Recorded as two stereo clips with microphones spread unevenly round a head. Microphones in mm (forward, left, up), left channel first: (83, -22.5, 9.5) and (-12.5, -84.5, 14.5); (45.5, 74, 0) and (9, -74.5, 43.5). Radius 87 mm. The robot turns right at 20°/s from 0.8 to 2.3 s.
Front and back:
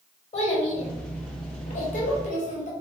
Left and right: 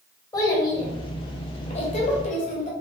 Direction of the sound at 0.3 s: 5° left.